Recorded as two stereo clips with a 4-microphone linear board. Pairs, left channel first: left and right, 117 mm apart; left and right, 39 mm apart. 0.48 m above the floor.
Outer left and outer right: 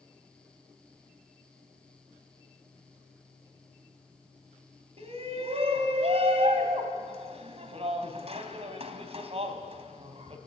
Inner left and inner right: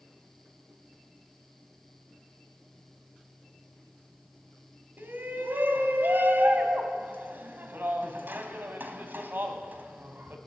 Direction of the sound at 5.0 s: 55° right (ahead or behind).